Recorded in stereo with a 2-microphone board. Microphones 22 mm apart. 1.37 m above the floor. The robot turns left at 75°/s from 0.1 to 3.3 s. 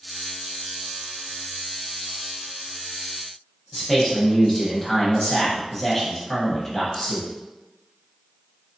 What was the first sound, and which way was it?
A man speaking, 15° left (ahead or behind).